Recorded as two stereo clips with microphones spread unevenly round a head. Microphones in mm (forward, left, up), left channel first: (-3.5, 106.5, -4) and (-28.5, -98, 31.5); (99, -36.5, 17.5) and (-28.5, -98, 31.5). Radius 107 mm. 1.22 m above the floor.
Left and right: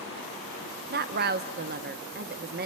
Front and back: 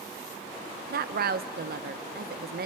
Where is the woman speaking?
145° right, 0.9 m.